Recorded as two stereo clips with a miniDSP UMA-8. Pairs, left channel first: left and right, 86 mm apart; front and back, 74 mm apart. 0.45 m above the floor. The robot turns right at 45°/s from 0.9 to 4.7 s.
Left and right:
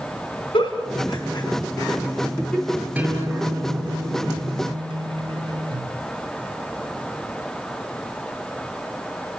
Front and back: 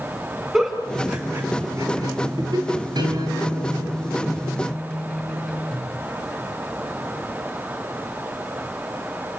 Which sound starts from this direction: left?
A giggle, at 0.5 s.